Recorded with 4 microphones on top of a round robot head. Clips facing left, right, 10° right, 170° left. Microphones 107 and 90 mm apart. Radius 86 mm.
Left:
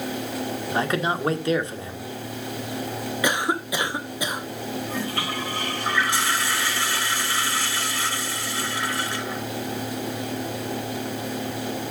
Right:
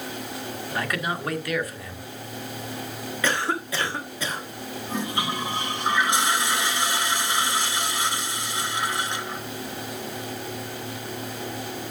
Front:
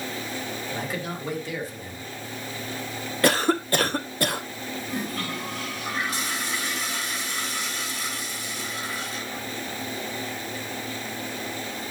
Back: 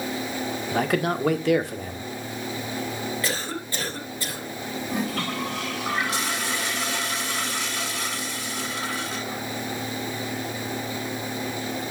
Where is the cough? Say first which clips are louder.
Left 1 dB, front 8 dB; 15° left, 1.2 m.